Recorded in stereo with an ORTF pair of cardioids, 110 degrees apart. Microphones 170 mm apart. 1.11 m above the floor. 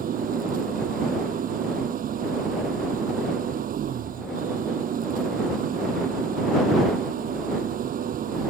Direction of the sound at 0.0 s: 55° right.